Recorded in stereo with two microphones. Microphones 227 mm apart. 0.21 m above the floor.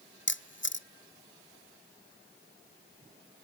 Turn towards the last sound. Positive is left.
turn(degrees=55)  # may be behind; listen again after turning